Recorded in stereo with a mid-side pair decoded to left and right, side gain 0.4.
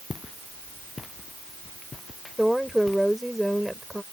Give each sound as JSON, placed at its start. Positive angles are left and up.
{"t": 0.1, "sound": "footsteps", "azimuth_deg": 25}
{"t": 2.4, "sound": "a woman speaking", "azimuth_deg": 0}